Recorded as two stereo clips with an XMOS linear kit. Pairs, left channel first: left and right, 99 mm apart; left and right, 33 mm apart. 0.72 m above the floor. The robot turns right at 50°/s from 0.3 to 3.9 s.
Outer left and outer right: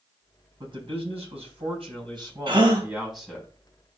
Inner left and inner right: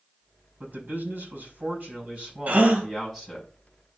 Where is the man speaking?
125° right, 5 m; by 3.5 s 20° left, 5 m.